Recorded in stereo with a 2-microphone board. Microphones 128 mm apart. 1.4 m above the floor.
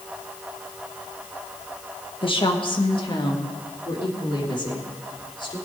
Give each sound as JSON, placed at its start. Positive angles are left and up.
{"t": 2.2, "sound": "a woman speaking", "side_deg": 45, "distance_m": 1.5}